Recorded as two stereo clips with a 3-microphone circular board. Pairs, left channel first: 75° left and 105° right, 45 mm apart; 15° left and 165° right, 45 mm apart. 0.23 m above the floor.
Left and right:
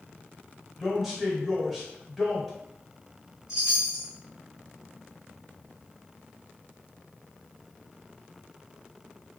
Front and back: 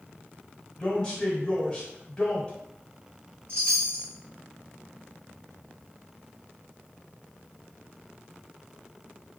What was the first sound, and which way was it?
A man speaking, 25° right.